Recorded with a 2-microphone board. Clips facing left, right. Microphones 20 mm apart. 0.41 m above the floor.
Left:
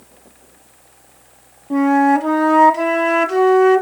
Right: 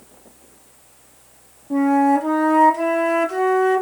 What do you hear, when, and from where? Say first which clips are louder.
1.7 s a flute: left 3 dB; 35° left (ahead or behind), 0.5 m